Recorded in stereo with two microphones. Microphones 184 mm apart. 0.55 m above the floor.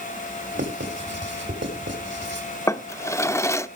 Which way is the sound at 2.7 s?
15° left (ahead or behind).